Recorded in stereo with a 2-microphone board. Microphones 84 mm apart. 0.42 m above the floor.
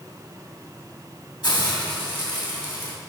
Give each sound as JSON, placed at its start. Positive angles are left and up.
{"t": 1.4, "sound": "a hiss", "side_deg": 60, "distance_m": 2.5}